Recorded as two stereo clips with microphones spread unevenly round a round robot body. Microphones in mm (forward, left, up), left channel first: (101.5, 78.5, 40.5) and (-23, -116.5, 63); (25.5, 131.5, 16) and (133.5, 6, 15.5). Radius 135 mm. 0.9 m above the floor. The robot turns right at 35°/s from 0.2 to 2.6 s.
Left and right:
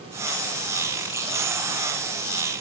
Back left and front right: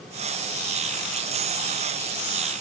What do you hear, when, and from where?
Only background noise.